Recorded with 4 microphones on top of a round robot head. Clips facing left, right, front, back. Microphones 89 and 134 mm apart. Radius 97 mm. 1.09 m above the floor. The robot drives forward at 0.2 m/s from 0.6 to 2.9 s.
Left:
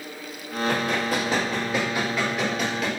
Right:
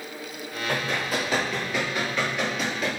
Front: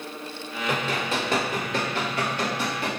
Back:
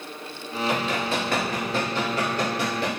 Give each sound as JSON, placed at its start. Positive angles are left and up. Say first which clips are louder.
{"t": 0.7, "sound": "running footsteps", "louder": "left 3 dB, back 1 dB", "azimuth_deg": 30, "distance_m": 1.5}